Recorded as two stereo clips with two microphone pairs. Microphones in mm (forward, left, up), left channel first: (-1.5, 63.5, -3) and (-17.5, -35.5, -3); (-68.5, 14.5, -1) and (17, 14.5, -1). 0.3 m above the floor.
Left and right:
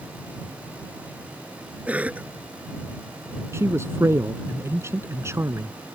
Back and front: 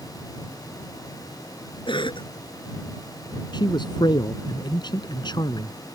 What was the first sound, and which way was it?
A cough, 175° right.